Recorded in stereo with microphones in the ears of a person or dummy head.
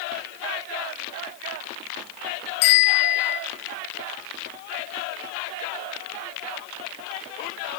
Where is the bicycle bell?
50° left (ahead or behind), 5 m.